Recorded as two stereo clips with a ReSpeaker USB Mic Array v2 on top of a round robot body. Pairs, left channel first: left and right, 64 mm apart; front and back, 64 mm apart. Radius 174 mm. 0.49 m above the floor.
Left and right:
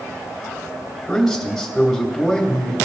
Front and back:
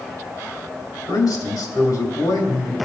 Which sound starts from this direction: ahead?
A man speaking, at 1.1 s.